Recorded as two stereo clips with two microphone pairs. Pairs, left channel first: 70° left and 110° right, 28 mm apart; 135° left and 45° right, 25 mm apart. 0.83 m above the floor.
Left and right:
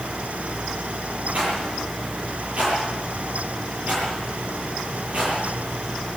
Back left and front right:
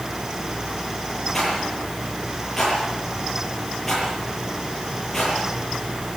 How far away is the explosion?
No explosion in this recording.